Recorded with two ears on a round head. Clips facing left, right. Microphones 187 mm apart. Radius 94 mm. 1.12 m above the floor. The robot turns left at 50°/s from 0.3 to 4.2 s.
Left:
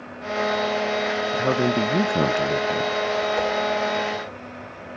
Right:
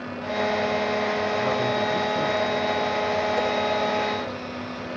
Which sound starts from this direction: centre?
A whoosh, at 3.4 s.